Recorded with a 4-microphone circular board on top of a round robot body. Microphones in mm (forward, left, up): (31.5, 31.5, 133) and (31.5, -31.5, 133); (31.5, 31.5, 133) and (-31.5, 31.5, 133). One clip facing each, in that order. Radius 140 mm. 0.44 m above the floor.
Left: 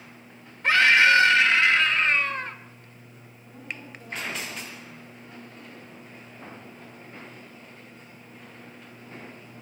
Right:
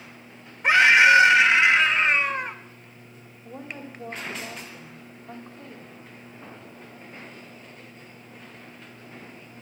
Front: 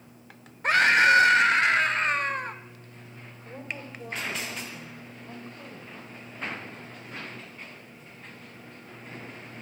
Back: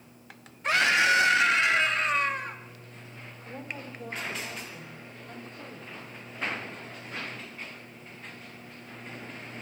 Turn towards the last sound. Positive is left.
turn(degrees=-65)